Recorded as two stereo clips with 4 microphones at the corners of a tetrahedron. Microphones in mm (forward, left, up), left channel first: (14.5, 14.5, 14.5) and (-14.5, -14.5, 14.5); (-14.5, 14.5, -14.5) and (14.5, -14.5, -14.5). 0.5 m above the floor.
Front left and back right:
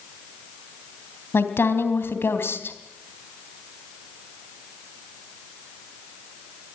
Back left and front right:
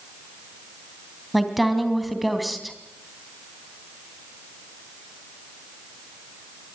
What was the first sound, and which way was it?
A woman speaking, 45° left.